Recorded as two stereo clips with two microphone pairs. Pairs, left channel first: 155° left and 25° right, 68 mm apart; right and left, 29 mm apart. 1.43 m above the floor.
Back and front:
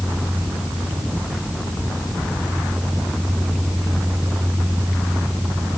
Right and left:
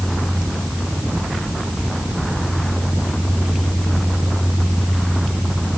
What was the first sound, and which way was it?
Only background noise.